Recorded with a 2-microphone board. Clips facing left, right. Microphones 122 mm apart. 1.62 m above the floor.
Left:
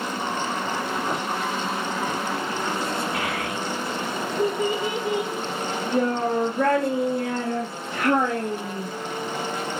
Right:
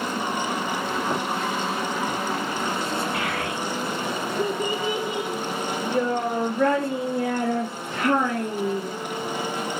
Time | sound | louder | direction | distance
3.1 | a child speaking | even | 40° left (ahead or behind) | 1.8 m